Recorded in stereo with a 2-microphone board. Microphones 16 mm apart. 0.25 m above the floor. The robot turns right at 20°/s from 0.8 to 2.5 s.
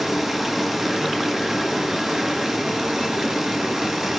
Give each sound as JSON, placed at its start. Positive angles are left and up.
{"t": 0.0, "sound": "running water", "azimuth_deg": -155, "distance_m": 4.0}